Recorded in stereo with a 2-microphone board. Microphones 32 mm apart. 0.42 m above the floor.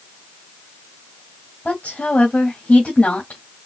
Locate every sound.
1.6 s a woman speaking: 40° left (ahead or behind), 2.5 m